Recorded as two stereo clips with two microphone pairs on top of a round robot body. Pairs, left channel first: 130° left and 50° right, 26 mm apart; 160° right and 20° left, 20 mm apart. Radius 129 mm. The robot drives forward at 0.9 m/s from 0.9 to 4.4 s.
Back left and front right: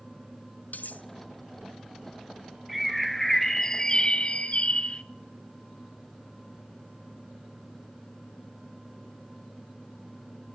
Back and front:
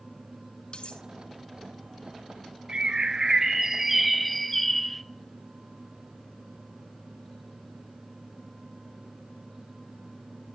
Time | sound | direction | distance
0.7 | cutlery clinking | 150° left | 1.5 m
2.7 | a bird | 40° left | 1.8 m